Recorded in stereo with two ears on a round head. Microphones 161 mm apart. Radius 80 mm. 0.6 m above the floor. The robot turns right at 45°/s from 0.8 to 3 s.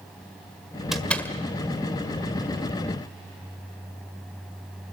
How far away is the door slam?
About 1.5 m.